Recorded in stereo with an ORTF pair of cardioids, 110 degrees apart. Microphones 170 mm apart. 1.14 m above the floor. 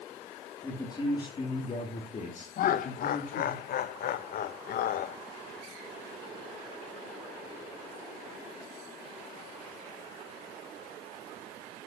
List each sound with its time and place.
0.6 s a man speaking: 15° left, 3 m; by 3.6 s 60° left, 4 m
2.6 s laughter: 60° left, 1.2 m